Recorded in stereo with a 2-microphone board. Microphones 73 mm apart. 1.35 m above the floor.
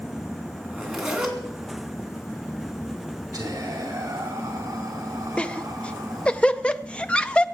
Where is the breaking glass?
No breaking glass in this recording.